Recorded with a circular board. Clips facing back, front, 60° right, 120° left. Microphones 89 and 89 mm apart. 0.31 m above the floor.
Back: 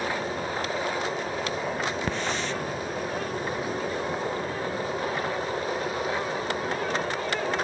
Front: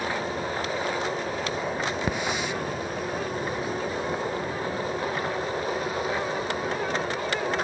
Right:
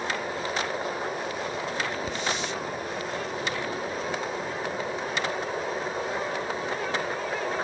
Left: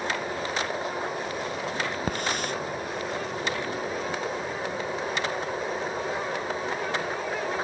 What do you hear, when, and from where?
2.1 s a hiss: 80° left